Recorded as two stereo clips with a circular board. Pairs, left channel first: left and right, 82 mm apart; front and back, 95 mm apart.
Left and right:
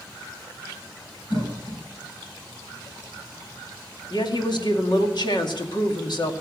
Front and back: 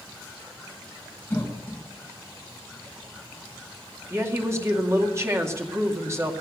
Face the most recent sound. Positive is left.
turn(degrees=120)